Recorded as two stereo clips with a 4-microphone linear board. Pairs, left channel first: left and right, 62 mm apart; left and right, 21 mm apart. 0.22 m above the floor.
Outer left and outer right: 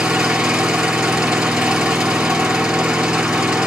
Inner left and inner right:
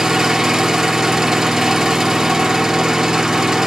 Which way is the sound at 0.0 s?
15° right (ahead or behind).